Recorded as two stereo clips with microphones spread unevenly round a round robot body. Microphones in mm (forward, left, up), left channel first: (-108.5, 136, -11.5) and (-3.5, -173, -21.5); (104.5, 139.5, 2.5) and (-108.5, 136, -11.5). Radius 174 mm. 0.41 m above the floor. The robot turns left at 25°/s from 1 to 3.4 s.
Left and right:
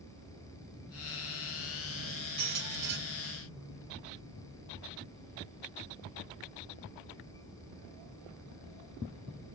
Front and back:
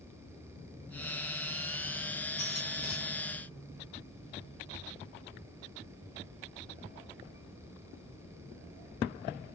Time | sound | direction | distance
2.4 | a squeak | 100° right | 1.7 m